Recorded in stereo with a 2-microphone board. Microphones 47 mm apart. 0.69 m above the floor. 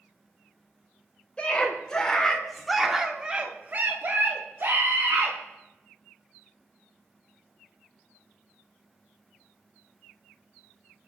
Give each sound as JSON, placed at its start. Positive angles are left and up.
{"t": 1.4, "sound": "a scream", "side_deg": 20, "distance_m": 3.5}